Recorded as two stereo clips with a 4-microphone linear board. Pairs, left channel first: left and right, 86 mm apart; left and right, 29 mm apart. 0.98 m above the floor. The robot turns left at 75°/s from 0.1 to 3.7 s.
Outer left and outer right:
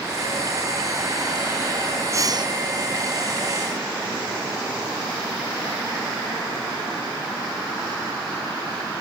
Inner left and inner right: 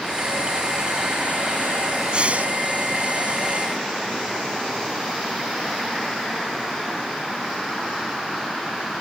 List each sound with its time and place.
2.1 s breathing: 35° right; by 2.5 s 65° right